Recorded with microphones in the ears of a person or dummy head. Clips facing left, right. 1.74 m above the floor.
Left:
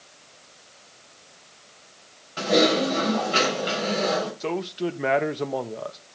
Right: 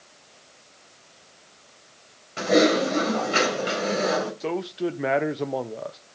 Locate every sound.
2.4 s typing on a keyboard: 30° right (ahead or behind), 4 m
4.4 s a man speaking: centre (ahead or behind), 0.7 m